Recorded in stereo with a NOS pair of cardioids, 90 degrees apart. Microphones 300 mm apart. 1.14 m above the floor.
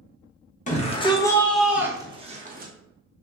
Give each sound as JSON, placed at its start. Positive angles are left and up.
{"t": 0.7, "sound": "a shout", "azimuth_deg": 25, "distance_m": 1.2}